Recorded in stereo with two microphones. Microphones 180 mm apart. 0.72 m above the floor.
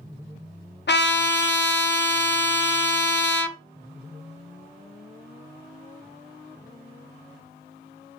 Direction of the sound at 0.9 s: 75° left (ahead or behind).